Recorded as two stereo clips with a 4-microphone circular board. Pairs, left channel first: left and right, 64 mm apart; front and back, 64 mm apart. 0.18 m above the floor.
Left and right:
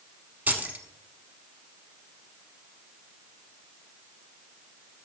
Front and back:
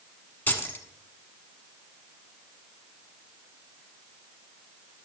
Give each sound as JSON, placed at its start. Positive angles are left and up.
{"t": 0.5, "sound": "keys jangling", "azimuth_deg": -40, "distance_m": 0.9}